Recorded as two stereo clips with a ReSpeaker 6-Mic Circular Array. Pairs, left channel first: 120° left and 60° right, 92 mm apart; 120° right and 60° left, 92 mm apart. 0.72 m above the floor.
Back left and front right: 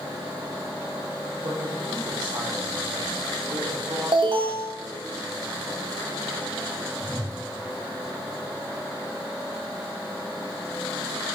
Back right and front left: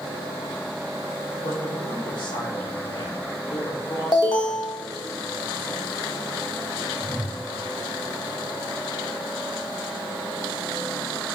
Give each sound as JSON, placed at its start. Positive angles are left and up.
{"t": 1.4, "sound": "a man speaking", "azimuth_deg": -95, "distance_m": 2.0}
{"t": 4.1, "sound": "an alarm", "azimuth_deg": -85, "distance_m": 1.5}
{"t": 7.0, "sound": "a whoosh", "azimuth_deg": -20, "distance_m": 1.3}